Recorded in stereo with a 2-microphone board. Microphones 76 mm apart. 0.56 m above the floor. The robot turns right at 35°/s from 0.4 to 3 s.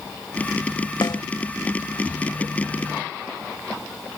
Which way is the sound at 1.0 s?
70° left (ahead or behind).